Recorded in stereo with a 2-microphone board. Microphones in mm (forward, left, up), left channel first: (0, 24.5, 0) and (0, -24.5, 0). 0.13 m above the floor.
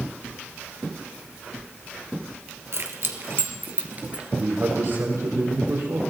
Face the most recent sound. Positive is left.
turn(degrees=-65)  # may be behind; listen again after turning